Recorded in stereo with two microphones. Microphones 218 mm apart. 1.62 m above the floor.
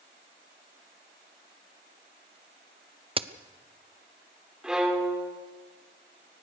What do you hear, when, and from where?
3.2 s a crack: 25° right (ahead or behind), 0.7 m
4.6 s a violin: 5° right (ahead or behind), 3 m